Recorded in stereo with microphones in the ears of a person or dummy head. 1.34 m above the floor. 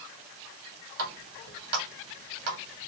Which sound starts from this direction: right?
A running tap, at 1.0 s.